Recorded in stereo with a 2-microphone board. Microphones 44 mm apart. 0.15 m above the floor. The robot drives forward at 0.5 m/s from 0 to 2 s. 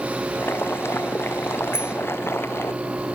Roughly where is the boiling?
Left.